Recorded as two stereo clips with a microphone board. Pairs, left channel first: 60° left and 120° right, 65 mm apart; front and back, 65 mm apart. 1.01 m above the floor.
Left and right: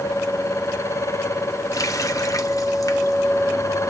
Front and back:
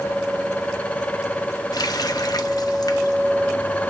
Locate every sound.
1.7 s a running tap: 20° left, 1.1 m